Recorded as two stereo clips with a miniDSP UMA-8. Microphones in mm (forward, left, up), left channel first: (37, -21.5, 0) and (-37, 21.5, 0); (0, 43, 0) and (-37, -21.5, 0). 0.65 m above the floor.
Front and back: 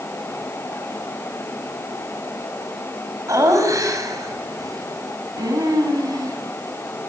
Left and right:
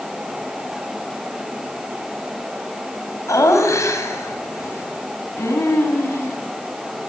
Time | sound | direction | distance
3.3 | laughter | 105° left | 4.5 m